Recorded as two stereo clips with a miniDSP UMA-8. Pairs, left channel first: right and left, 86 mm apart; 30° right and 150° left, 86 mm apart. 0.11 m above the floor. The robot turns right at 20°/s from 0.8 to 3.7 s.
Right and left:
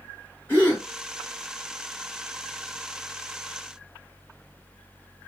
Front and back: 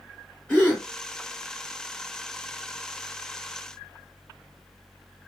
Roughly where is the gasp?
Right.